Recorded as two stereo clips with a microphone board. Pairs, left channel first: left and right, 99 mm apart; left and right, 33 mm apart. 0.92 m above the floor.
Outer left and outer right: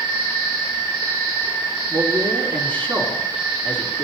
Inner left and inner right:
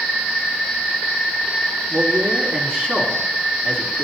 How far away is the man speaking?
About 3.5 m.